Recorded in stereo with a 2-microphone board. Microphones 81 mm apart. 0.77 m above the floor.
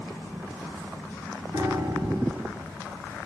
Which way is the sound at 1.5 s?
55° right (ahead or behind).